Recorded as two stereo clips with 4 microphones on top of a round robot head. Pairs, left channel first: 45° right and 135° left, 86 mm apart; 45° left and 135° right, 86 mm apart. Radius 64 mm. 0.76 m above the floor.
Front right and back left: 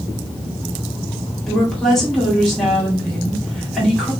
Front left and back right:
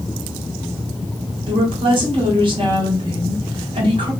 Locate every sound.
1.5 s a woman speaking: 135° right, 2.5 m